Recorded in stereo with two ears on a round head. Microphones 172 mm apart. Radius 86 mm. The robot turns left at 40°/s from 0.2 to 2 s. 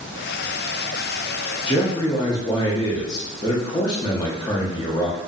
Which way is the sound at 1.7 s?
30° left (ahead or behind).